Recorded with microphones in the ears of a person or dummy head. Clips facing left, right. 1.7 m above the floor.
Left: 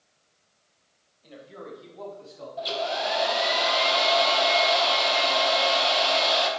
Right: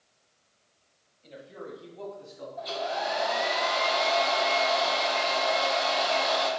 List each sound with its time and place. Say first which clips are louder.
1.2 s a man speaking: even; 5° left (ahead or behind), 2 m; by 2.5 s 10° left (ahead or behind), 3.5 m
2.6 s a hair dryer: left 3 dB; 45° left (ahead or behind), 1.1 m